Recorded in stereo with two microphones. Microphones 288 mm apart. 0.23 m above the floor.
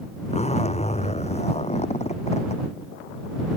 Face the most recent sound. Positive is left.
turn(degrees=20)  # may be behind; listen again after turning